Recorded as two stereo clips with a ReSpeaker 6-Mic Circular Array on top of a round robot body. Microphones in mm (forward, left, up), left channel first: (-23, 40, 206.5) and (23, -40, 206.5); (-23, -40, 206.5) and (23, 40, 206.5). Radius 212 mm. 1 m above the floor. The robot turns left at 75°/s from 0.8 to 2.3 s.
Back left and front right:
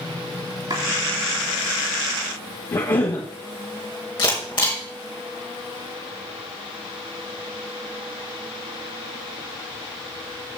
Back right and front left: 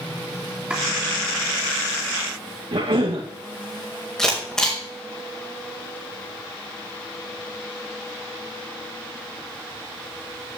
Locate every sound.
0.7 s chopping: 20° right, 3.5 m
2.7 s a cough: 80° left, 2 m
4.2 s a camera shutter: 155° left, 3.5 m